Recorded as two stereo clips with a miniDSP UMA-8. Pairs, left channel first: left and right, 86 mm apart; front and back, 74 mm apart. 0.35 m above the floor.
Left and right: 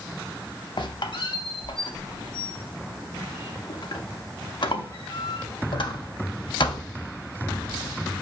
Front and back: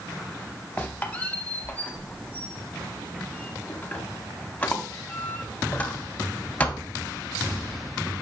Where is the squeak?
65° left, 0.6 m.